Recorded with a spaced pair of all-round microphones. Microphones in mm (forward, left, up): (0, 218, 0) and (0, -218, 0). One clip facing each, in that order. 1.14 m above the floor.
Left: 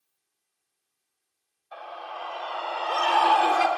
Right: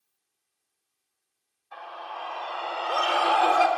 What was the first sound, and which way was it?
A scream, 10° right (ahead or behind).